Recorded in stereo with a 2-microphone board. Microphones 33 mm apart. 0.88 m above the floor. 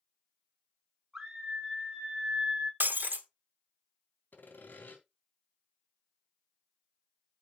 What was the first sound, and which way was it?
A scream, 15° right (ahead or behind).